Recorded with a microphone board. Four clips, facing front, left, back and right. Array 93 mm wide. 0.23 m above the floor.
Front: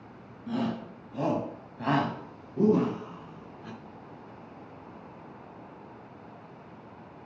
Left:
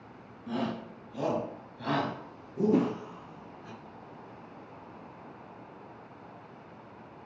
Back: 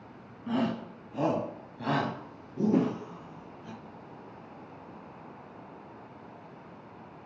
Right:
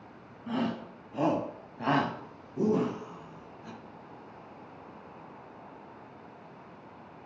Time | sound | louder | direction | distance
0.5 | a shout | right 2 dB, back 1 dB | 145° right | 1.8 m
2.7 | a whoosh | left 3 dB, back 4 dB | 130° left | 2.5 m